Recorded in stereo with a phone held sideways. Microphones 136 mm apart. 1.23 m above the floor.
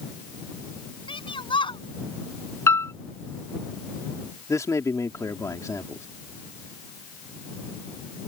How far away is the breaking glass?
I don't hear breaking glass.